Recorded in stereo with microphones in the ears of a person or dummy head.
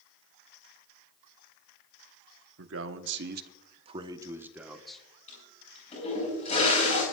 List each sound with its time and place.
2.6 s a man speaking: 85° right, 1.5 m; by 5.0 s centre (ahead or behind), 1.7 m
5.3 s a toilet flushing: 40° left (ahead or behind), 8 m